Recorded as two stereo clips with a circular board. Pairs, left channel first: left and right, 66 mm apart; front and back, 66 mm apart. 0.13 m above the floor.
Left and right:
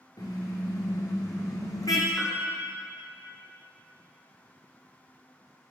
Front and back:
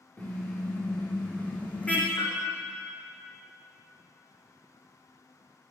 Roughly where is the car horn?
Ahead left.